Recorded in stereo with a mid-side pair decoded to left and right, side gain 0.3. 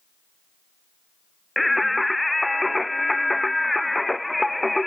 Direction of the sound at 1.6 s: 15° left.